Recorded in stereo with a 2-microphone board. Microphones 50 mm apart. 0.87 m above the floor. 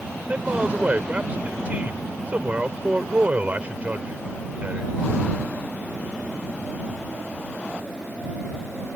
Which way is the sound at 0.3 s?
30° right (ahead or behind).